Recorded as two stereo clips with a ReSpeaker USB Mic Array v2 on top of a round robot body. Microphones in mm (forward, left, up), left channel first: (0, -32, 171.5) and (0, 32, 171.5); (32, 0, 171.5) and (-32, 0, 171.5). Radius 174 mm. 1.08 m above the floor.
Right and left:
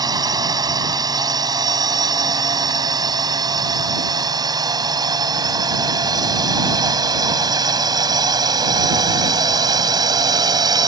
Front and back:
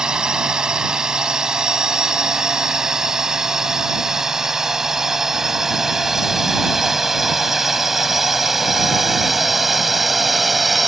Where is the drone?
100° left; by 10.9 s 90° left.